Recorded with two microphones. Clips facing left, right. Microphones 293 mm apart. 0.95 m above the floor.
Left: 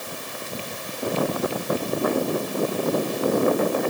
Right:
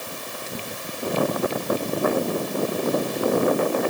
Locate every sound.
Only background noise.